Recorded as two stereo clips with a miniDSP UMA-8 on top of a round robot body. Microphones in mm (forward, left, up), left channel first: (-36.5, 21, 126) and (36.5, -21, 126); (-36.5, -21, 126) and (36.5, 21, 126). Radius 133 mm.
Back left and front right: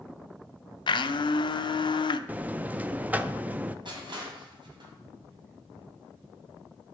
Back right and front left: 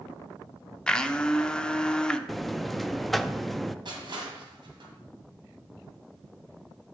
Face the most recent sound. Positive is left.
turn(degrees=0)